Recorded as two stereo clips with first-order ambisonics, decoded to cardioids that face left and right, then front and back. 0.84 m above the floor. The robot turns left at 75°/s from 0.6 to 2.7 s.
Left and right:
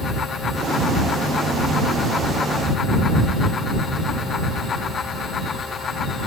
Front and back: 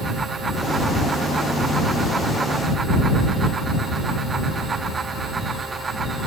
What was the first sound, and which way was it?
Only background noise.